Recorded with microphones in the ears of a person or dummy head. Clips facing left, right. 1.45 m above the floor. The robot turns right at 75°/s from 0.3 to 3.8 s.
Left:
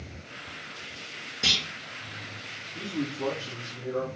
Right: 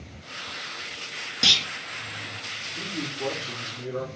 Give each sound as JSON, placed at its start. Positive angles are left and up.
{"t": 1.4, "sound": "a clunk", "side_deg": -65, "distance_m": 0.7}
{"t": 2.7, "sound": "a man speaking", "azimuth_deg": 60, "distance_m": 1.5}